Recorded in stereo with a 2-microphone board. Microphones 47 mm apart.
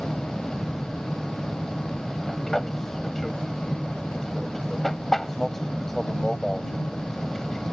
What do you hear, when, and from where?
0.0 s an aircraft: 5° left (ahead or behind)